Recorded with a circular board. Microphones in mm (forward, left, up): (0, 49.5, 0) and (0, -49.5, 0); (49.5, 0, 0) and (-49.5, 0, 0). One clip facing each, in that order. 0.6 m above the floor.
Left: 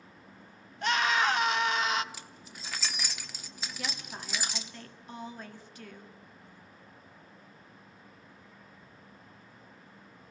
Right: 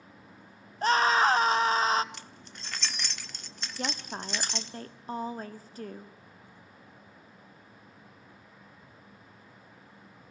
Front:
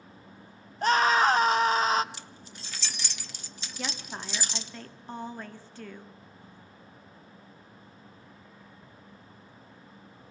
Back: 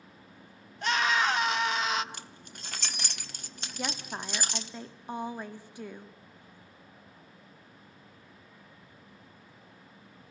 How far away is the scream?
About 1.0 m.